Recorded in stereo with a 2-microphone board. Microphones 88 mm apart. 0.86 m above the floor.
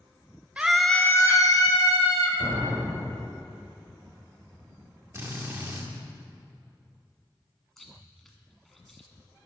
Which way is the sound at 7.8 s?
5° left (ahead or behind).